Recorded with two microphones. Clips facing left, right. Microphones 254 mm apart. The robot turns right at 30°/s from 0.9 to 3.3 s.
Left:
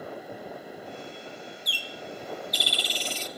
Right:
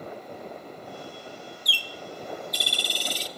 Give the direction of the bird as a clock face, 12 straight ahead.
3 o'clock.